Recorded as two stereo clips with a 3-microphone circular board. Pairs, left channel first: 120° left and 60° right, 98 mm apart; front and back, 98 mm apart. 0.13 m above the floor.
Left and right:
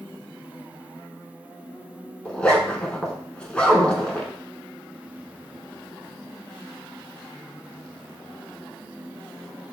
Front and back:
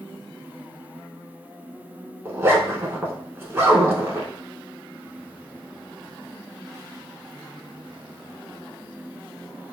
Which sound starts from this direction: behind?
A zipper, at 2.2 s.